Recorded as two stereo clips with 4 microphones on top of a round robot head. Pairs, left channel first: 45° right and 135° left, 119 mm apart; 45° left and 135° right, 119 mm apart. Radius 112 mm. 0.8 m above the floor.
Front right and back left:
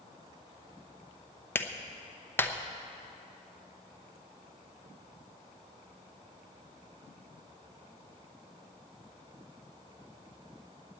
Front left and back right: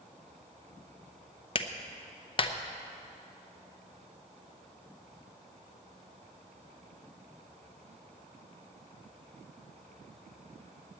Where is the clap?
25° left, 0.9 m.